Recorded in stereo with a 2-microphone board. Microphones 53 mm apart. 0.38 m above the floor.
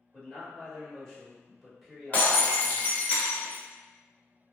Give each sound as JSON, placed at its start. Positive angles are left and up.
{"t": 0.1, "sound": "a man speaking", "side_deg": 15, "distance_m": 1.1}
{"t": 2.1, "sound": "breaking glass", "side_deg": 30, "distance_m": 0.7}